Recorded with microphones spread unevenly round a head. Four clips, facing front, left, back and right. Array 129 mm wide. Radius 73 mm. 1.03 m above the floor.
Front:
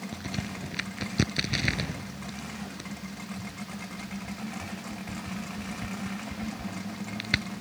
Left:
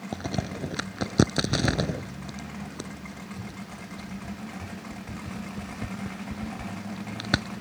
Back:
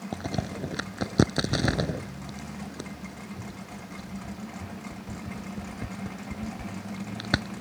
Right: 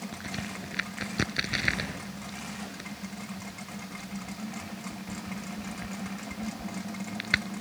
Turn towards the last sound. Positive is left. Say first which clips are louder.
# left 6 dB, back 7 dB
turn(degrees=150)